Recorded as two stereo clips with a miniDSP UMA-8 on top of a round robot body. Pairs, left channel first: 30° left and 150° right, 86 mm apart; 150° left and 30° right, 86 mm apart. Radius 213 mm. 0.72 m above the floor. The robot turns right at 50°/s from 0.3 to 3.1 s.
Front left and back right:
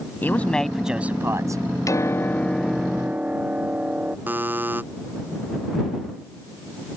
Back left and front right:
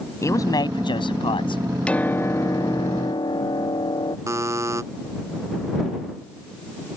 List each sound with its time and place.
0.2 s a man speaking: 100° left; by 1.6 s 165° left
1.9 s a piano: 75° left; by 4.2 s 135° left
4.3 s a buzzer: 85° right